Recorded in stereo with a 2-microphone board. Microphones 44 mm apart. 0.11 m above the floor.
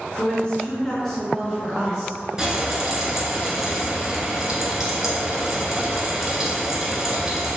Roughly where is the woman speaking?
Left.